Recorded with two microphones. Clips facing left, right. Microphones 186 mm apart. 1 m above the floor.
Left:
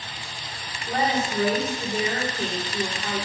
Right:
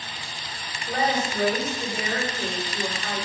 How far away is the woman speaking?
About 3 m.